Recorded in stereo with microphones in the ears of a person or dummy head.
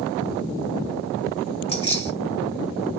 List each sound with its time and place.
1.7 s keys jangling: 30° left (ahead or behind), 1.2 m